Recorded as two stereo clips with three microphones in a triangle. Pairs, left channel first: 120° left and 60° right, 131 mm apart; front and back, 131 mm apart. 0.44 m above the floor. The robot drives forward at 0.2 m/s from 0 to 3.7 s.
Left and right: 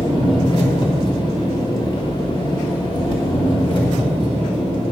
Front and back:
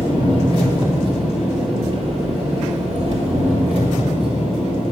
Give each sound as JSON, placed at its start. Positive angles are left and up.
{"t": 0.0, "sound": "an engine running", "azimuth_deg": 150, "distance_m": 1.5}